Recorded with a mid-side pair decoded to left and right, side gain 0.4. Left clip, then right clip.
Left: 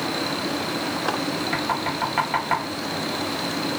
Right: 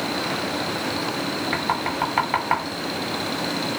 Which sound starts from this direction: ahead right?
Knocking, at 1.5 s.